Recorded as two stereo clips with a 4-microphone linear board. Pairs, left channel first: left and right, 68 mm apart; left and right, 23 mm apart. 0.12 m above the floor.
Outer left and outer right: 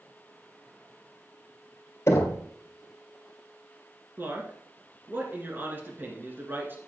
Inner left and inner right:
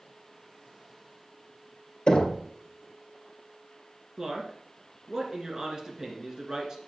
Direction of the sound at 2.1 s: 40° left (ahead or behind).